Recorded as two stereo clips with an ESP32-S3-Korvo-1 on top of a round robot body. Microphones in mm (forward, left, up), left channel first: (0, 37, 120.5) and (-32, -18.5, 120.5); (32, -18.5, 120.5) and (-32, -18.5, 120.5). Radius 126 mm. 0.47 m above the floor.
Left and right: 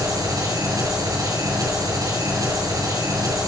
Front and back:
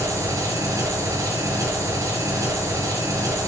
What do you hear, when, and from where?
0.0 s an engine running: 140° right, 5.5 m